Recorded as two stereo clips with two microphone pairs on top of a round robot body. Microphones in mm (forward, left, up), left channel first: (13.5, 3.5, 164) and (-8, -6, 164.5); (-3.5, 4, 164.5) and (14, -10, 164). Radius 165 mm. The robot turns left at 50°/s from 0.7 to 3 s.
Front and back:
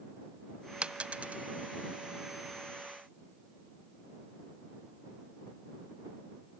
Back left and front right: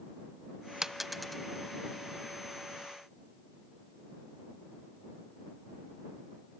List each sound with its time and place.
0.8 s a dropped coin: 110° right; by 1.4 s 140° right